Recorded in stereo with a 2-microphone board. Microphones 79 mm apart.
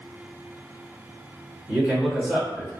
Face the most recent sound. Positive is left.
turn(degrees=-10)  # may be behind; listen again after turning